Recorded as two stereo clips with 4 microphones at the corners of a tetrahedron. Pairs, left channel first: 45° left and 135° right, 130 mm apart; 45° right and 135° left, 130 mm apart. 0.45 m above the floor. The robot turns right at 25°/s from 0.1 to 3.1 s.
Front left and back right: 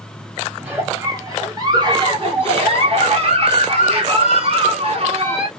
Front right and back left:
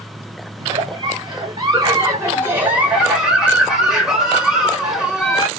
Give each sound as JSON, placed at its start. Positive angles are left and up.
{"t": 0.6, "sound": "a giggle", "azimuth_deg": 155, "distance_m": 1.8}